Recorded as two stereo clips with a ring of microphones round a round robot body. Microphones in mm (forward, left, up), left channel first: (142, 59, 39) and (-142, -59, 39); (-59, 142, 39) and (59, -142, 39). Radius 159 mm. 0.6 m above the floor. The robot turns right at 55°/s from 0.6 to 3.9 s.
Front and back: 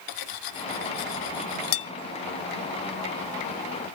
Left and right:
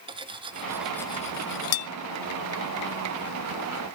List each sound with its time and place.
0.1 s cutlery clinking: 5° left, 0.8 m; by 1.9 s 80° left, 0.8 m